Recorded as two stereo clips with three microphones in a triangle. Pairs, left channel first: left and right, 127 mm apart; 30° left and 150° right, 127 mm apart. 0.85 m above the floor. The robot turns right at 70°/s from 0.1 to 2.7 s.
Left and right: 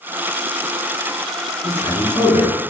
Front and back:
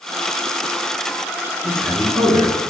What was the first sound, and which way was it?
A man speaking, 105° left.